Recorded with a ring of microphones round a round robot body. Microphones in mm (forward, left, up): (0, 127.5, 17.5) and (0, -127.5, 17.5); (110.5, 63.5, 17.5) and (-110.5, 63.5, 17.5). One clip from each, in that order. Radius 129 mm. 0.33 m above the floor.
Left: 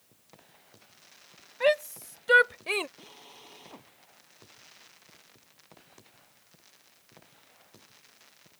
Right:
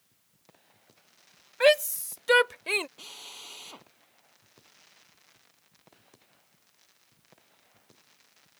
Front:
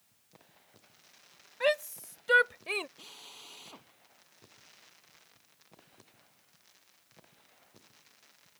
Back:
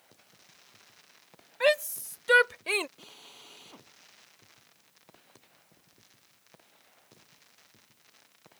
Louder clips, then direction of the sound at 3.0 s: Right 7 dB, front 1 dB; 80° right.